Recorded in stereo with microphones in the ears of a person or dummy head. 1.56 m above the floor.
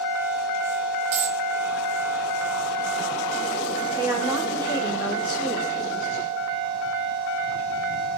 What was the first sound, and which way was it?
A dropped coin, 40° right (ahead or behind).